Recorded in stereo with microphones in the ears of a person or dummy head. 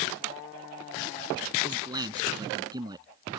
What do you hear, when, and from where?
1.6 s a man speaking: 20° right (ahead or behind)